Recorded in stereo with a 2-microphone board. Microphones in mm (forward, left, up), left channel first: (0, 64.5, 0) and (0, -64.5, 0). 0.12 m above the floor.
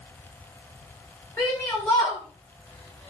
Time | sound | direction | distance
1.4 | a shout | 20° left (ahead or behind) | 8.5 m